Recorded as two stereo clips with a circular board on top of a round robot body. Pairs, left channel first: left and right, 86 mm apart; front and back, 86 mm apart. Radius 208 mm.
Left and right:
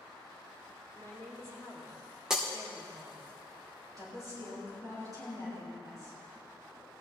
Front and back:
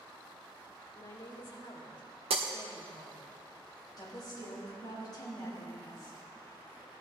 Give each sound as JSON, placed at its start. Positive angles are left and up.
{"t": 0.9, "sound": "a woman speaking", "azimuth_deg": -35, "distance_m": 3.5}
{"t": 2.3, "sound": "breaking glass", "azimuth_deg": -175, "distance_m": 0.6}
{"t": 4.0, "sound": "a woman speaking", "azimuth_deg": -40, "distance_m": 4.0}